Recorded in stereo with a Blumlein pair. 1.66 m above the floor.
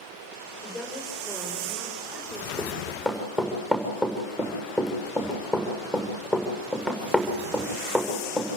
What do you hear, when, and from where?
0.6 s a woman speaking: straight ahead, 7 m; by 2.5 s 25° right, 6.5 m
2.6 s running footsteps: 5° right, 7 m